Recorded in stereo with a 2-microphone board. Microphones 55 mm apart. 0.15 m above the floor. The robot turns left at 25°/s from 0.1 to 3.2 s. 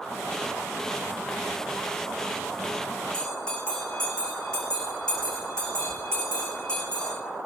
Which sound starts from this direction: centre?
A bell, at 3.1 s.